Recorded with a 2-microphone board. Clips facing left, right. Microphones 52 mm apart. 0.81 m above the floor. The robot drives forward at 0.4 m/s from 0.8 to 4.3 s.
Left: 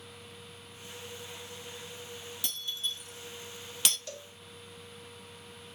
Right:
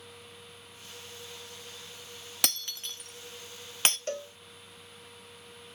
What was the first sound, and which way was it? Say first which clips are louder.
Breaking glass: right 2 dB; 75° right (ahead or behind).